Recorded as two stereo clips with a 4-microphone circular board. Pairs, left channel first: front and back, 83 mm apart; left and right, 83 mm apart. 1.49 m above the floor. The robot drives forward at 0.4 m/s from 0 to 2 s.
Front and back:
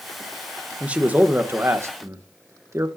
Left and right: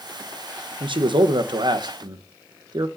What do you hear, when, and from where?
0.8 s a man speaking: 105° right, 1.1 m; by 2.9 s 125° right, 1.3 m